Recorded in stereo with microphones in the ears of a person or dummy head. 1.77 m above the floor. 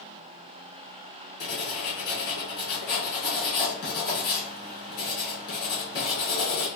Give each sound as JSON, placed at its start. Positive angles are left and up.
{"t": 1.4, "sound": "writing", "side_deg": 60, "distance_m": 2.5}